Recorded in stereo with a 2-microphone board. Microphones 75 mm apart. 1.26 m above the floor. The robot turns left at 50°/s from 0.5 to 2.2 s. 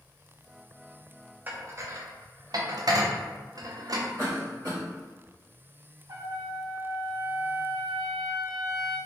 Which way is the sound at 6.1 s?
55° right (ahead or behind).